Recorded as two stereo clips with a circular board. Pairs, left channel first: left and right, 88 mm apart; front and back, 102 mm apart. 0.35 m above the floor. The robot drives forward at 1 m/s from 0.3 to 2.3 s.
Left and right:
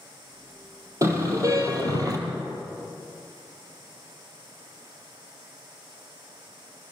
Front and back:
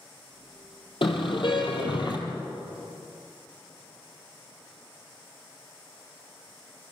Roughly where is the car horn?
Ahead right.